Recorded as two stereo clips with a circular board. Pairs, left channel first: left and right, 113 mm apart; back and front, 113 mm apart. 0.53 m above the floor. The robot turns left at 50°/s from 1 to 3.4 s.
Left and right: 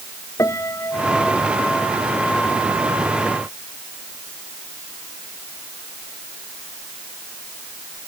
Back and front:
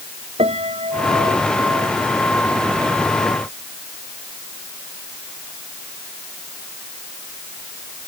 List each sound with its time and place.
0.4 s a piano: 25° left; by 1.9 s 20° right